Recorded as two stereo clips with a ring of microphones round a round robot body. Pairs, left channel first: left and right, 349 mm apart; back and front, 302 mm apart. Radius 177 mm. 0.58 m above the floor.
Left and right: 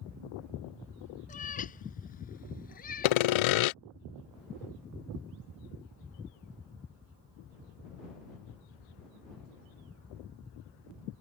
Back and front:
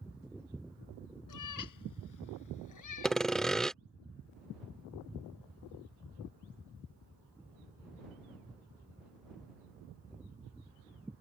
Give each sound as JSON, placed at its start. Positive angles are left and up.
{"t": 1.3, "sound": "a cat meowing", "azimuth_deg": 160}
{"t": 3.0, "sound": "sawing", "azimuth_deg": 90}